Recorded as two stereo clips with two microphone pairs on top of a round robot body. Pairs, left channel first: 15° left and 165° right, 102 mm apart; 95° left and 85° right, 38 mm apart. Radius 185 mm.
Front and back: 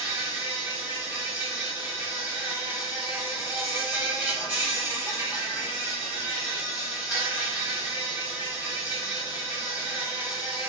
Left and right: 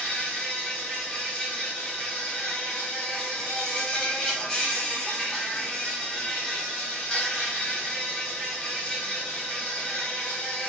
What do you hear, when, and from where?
0.0 s an insect: 120° left, 1.5 m